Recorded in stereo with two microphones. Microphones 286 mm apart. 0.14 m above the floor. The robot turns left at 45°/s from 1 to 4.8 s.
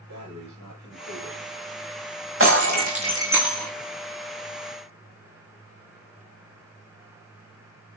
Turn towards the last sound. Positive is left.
turn(degrees=125)